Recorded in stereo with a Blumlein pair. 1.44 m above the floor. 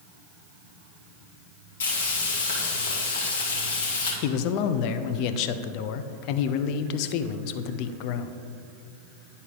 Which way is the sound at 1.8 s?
65° left.